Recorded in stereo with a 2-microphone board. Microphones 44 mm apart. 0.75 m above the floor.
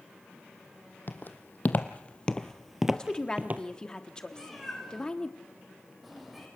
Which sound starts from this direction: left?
Footsteps, at 1.1 s.